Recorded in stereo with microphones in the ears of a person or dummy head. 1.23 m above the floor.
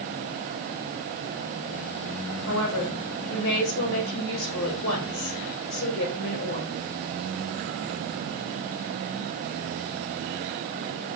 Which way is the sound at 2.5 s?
70° left (ahead or behind).